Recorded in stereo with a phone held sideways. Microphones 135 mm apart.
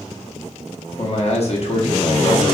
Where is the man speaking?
50° left (ahead or behind), 0.8 m.